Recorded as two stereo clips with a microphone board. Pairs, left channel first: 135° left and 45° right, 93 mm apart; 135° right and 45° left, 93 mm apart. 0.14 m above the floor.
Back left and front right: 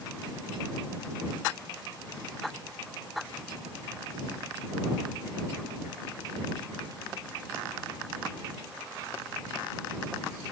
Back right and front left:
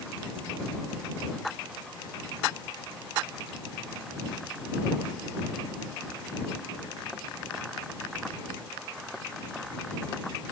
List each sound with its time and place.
Only background noise.